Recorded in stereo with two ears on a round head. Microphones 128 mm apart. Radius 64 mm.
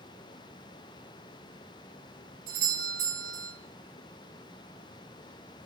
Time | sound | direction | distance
2.5 | a doorbell | 75° right (ahead or behind) | 6 m